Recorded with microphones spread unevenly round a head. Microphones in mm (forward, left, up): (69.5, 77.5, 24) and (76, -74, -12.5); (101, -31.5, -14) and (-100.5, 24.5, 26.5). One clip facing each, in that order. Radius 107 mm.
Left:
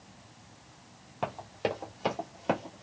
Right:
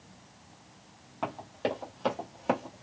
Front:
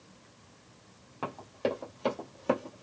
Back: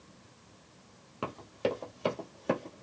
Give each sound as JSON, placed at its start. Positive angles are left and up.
{"t": 1.2, "sound": "running footsteps", "azimuth_deg": 140, "distance_m": 1.6}